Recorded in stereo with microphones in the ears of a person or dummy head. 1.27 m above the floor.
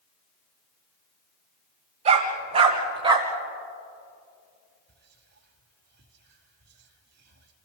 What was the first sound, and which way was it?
A dog barking, 35° right (ahead or behind).